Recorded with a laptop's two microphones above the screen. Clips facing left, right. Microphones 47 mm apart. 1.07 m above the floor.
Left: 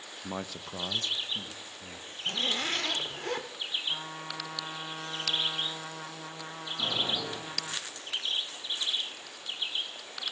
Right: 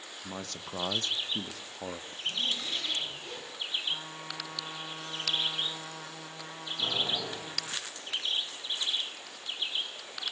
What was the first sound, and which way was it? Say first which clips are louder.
A man speaking: left 3 dB; 25° left (ahead or behind).